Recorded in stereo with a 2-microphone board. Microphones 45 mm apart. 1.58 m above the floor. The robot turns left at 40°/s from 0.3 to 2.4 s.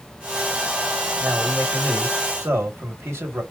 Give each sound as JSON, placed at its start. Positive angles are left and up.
{"t": 1.2, "sound": "a man speaking", "azimuth_deg": -60, "distance_m": 2.0}